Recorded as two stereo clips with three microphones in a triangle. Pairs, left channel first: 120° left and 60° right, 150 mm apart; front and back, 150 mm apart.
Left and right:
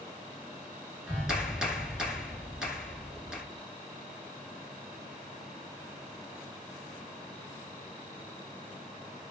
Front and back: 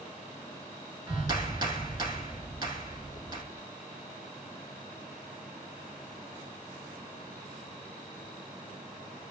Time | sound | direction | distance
1.1 | a clap | 140° right | 1.0 m
3.5 | whispering | 15° right | 1.2 m